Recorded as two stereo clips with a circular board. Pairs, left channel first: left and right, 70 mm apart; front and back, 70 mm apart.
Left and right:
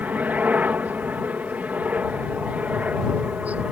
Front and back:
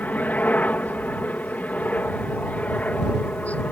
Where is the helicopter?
45° right.